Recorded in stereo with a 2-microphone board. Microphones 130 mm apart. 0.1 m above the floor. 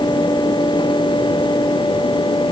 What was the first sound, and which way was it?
Only background noise.